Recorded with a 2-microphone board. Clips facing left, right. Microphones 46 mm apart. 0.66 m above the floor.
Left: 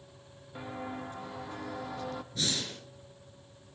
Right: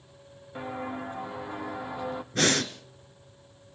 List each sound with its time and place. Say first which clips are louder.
0.6 s footsteps: right 5 dB; 15° right (ahead or behind), 2.5 m
2.3 s breathing: right 11 dB; 55° right (ahead or behind), 1.5 m